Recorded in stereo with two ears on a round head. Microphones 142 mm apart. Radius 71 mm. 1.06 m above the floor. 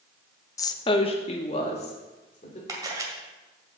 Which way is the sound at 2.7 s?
25° right (ahead or behind).